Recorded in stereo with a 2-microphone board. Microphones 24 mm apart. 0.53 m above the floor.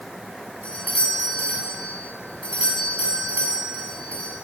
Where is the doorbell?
70° left (ahead or behind), 6.5 m.